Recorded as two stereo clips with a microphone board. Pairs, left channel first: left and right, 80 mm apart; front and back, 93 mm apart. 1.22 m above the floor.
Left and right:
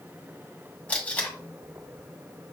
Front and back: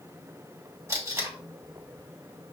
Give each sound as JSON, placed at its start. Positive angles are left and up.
{"t": 0.9, "sound": "tape being pulled", "azimuth_deg": 150, "distance_m": 1.2}